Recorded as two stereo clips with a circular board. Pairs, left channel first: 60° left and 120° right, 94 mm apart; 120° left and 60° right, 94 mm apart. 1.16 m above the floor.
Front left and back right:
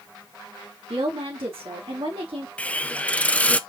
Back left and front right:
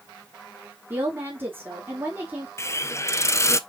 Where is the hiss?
120° left, 0.6 m.